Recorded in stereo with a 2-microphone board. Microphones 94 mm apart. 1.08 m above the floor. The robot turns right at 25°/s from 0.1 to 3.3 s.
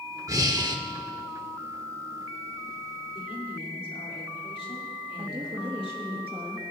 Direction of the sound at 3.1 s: 80° left.